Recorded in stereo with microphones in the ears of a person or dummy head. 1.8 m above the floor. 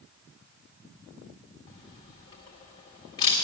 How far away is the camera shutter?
About 1.7 m.